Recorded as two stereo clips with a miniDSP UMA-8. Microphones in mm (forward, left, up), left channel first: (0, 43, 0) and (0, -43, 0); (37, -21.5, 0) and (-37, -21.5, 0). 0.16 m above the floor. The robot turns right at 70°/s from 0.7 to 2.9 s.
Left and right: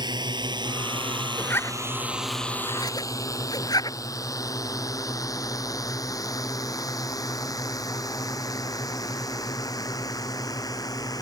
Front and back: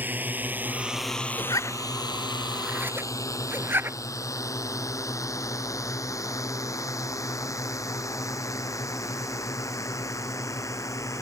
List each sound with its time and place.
0.0 s a drone: 115° right; by 11.2 s 45° left
1.4 s a zipper: 15° left; by 4.0 s 125° left